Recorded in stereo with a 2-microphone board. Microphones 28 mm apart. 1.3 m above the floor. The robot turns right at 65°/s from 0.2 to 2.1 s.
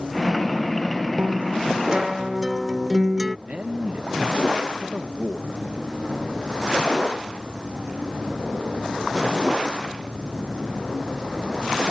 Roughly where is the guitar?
Right.